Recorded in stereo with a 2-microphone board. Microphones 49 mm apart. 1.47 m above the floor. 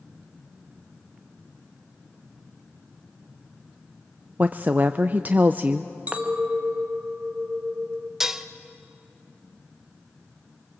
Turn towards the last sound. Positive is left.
turn(degrees=-10)  # may be behind; listen again after turning